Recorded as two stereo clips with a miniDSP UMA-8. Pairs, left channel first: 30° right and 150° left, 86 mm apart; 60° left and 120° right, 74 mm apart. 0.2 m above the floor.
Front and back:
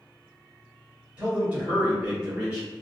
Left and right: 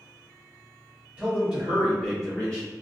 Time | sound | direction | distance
1.2 | a man speaking | 160° right | 1.5 m